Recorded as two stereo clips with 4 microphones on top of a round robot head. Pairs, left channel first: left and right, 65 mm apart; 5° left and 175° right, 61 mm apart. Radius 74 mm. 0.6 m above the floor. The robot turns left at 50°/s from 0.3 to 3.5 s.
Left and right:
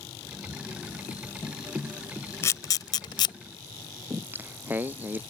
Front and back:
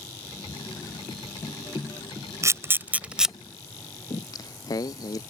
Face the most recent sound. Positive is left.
turn(degrees=-30)